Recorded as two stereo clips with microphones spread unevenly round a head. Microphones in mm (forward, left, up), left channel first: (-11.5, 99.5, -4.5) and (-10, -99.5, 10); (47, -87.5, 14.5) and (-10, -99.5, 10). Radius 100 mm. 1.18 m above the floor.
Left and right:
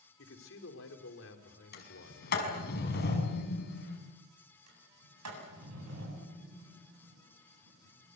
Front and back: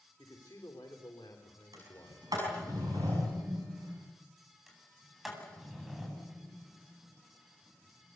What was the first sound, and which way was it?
A man speaking, 65° left.